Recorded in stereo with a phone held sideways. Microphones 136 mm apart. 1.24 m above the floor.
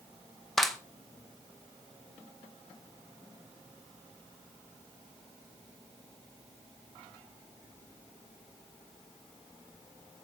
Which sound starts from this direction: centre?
A clap, at 0.6 s.